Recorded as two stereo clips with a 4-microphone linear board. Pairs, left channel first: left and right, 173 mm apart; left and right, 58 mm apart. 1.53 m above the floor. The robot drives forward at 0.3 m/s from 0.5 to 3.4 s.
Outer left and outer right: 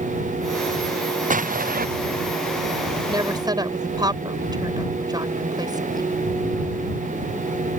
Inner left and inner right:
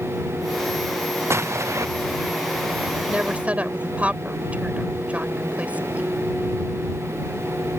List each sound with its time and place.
1.3 s an explosion: 50° right (ahead or behind); by 1.9 s 55° right (ahead or behind)
3.1 s a woman speaking: 25° right (ahead or behind)